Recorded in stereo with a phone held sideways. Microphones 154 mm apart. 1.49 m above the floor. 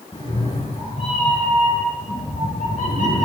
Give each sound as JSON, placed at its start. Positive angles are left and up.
{"t": 0.1, "sound": "a cat meowing", "side_deg": 40, "distance_m": 4.5}